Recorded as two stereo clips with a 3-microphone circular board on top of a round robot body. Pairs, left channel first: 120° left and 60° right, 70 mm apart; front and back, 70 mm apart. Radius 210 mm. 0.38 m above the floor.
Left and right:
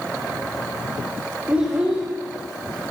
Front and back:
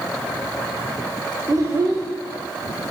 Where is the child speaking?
130° right, 1.6 m.